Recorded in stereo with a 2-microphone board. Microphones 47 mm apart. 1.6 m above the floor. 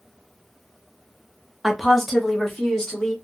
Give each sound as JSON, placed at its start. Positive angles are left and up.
{"t": 1.6, "sound": "a woman speaking", "side_deg": -5, "distance_m": 0.6}